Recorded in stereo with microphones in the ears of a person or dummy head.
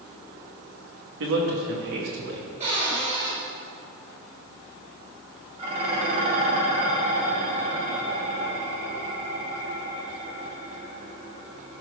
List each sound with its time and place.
1.2 s a man speaking: 70° right (ahead or behind), 2.5 m
2.6 s a cupboard door: 30° right (ahead or behind), 4.5 m
5.6 s dishes clattering: 40° right (ahead or behind), 3 m